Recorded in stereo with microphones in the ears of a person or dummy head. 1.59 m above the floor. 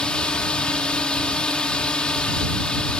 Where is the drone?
5° left (ahead or behind).